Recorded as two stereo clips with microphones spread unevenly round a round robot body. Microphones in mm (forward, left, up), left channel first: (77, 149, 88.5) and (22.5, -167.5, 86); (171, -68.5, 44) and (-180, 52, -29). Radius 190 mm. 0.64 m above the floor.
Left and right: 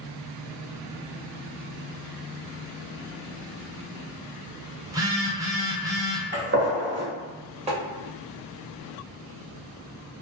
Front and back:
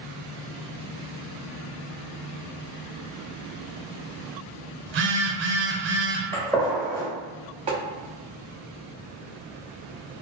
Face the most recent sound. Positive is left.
turn(degrees=-155)